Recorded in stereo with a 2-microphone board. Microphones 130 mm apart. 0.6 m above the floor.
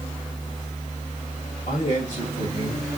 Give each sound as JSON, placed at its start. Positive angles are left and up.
{"t": 1.7, "sound": "a man speaking", "side_deg": 50, "distance_m": 3.0}